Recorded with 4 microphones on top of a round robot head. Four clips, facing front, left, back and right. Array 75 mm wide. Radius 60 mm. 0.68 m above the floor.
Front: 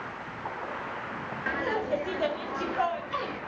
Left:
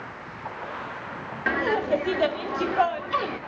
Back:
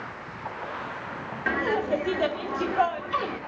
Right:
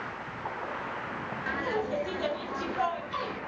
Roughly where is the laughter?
Left.